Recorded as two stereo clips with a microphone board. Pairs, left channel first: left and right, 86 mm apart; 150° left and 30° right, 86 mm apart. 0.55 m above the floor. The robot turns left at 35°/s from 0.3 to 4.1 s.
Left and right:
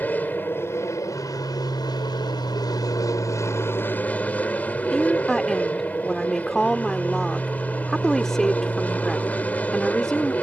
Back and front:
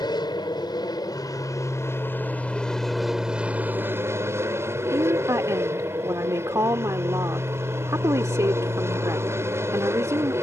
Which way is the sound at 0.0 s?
155° left.